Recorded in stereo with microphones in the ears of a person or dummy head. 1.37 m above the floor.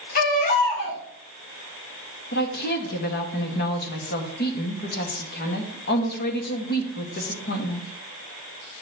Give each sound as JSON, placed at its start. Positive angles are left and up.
{"t": 0.1, "sound": "a baby crying", "side_deg": 45, "distance_m": 1.9}
{"t": 2.3, "sound": "a woman speaking", "side_deg": 50, "distance_m": 1.1}